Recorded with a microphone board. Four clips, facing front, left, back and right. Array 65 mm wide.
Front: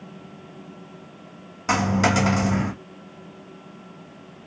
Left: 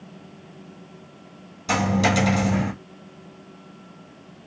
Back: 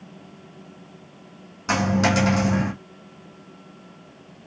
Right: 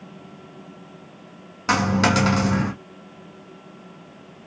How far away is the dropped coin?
About 2.5 m.